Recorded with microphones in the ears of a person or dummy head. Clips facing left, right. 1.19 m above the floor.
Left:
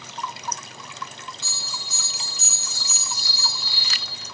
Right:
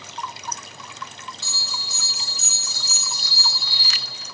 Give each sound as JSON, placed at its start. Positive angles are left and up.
{"t": 1.4, "sound": "a bell", "side_deg": 0, "distance_m": 1.0}